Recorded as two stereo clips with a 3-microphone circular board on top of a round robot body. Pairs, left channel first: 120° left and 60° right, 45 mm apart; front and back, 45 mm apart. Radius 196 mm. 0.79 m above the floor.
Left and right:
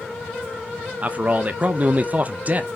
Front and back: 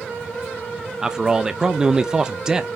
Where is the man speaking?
110° right, 0.9 m.